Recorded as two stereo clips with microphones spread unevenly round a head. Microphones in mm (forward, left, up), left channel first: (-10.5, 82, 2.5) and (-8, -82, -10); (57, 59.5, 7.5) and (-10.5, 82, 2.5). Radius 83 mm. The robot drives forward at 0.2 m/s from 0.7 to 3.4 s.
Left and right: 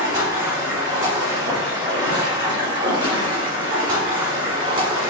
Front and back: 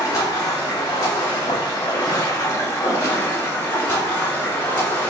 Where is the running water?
20° right, 1.2 m; by 5.1 s 40° right, 0.9 m.